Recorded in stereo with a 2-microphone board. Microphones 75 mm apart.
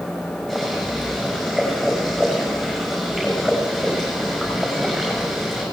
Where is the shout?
No shout in this recording.